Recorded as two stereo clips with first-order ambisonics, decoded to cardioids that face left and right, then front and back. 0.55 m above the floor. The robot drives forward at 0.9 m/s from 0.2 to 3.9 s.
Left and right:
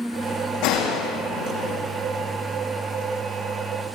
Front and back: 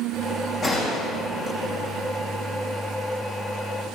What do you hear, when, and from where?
0.6 s a gunshot: 70° left, 7 m; by 1.8 s 80° left, 6.5 m